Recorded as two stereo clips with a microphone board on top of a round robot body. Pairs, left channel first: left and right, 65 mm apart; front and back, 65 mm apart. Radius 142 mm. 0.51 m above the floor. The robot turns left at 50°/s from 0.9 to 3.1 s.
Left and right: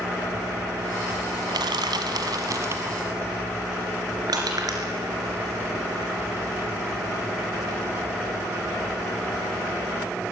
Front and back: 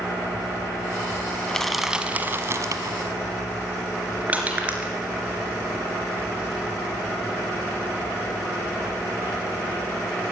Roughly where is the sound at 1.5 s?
Right.